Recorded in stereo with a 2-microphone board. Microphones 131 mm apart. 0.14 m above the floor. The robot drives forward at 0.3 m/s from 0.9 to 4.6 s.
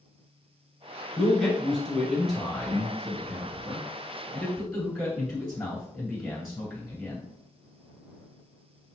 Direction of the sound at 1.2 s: 5° left (ahead or behind).